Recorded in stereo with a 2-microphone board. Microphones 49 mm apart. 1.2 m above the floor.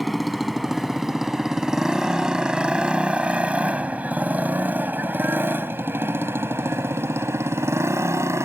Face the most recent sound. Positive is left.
turn(degrees=-70)  # may be behind; listen again after turning